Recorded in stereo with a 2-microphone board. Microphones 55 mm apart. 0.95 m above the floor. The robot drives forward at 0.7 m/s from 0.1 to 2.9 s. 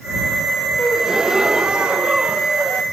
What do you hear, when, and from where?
0.8 s a gasp: 10° right (ahead or behind); by 2.8 s 20° right (ahead or behind)